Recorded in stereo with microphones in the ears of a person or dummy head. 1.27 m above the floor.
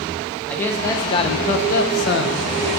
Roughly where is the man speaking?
Centre.